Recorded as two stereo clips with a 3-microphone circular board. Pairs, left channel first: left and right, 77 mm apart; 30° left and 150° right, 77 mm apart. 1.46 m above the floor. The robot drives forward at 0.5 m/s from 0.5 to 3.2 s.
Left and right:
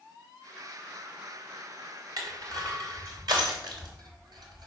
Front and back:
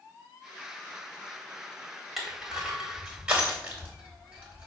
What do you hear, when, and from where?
2.2 s crushing: 65° right, 3 m; by 4.7 s 75° right, 2.5 m